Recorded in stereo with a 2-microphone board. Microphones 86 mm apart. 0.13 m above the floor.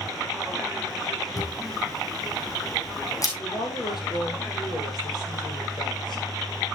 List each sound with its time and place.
1.4 s a camera shutter: 45° left (ahead or behind), 3 m
3.4 s a woman speaking: 65° left (ahead or behind), 5 m